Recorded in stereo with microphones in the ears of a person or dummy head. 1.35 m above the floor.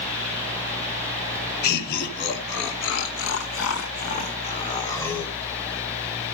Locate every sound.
1.6 s laughter: 55° left (ahead or behind), 2.0 m; by 5.3 s 10° left (ahead or behind), 1.2 m